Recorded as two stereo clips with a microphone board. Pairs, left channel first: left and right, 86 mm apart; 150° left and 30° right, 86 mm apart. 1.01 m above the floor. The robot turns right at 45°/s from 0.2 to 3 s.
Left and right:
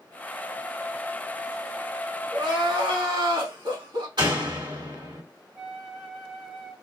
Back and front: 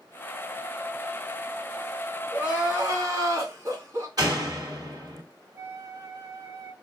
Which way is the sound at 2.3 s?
110° right.